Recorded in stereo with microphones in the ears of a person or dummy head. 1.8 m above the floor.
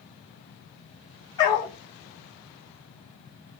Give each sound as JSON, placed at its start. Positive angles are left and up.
{"t": 1.4, "sound": "a dog barking", "side_deg": 25, "distance_m": 1.8}